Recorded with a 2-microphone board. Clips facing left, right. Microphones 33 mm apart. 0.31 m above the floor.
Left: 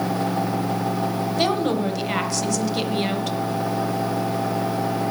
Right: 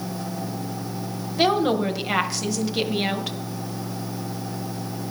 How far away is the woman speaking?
About 1.2 m.